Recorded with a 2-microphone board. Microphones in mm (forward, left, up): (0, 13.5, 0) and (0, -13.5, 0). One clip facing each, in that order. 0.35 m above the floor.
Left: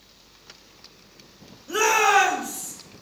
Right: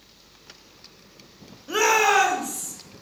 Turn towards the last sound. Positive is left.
turn(degrees=35)  # may be behind; listen again after turning